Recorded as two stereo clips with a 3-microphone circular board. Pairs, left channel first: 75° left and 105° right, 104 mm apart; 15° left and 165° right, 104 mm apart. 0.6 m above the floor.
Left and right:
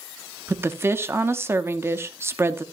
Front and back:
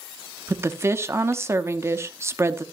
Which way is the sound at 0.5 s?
140° right.